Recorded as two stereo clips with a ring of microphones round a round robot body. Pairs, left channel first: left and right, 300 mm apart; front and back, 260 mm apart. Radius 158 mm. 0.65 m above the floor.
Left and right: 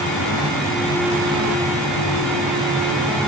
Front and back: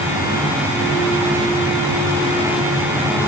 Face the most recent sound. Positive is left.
No sound to turn to.